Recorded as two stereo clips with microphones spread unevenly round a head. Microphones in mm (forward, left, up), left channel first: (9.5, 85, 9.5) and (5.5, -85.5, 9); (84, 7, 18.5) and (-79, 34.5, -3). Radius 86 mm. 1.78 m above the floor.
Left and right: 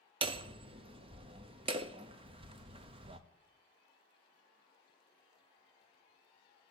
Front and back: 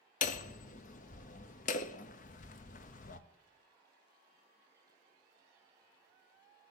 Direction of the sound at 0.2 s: 35° right.